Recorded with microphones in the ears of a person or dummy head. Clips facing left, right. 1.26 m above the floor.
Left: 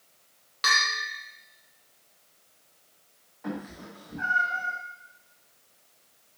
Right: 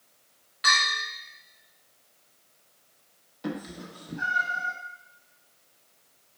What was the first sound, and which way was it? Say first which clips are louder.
A bell: right 1 dB; 65° left (ahead or behind).